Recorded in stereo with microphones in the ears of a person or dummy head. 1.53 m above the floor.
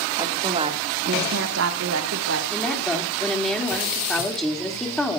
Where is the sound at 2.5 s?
5° left (ahead or behind), 3 m.